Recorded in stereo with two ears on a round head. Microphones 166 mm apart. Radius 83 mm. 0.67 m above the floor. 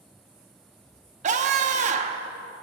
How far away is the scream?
About 1.0 m.